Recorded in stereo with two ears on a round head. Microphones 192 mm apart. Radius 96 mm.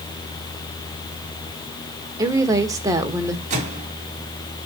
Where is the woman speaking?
15° right (ahead or behind), 1.3 m.